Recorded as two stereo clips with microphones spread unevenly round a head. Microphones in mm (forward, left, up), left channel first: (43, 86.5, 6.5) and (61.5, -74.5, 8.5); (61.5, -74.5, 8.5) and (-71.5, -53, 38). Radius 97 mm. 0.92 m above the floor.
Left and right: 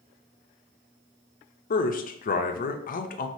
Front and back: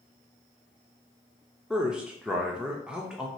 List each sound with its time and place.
1.7 s a man speaking: 80° left, 0.6 m